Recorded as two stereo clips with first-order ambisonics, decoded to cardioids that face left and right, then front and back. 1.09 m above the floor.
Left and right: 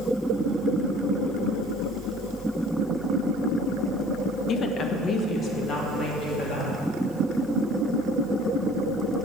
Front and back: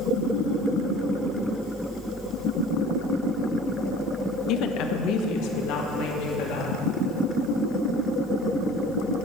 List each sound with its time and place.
4.5 s a woman speaking: 35° left, 0.5 m; by 6.8 s 25° left, 2 m